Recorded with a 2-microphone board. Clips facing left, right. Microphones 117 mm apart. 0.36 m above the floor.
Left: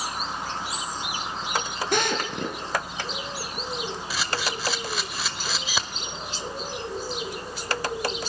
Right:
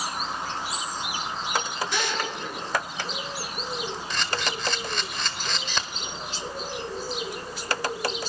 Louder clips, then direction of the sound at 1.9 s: Left 7 dB; 55° left (ahead or behind).